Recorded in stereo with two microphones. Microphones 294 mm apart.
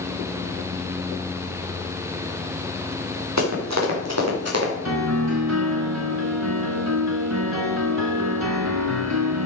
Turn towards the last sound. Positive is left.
turn(degrees=-65)  # may be behind; listen again after turning